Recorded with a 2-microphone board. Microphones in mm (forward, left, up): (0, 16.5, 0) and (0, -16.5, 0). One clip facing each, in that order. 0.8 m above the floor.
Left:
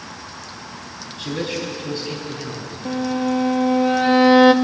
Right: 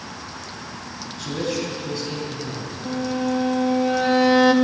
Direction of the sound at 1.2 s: 40° left (ahead or behind).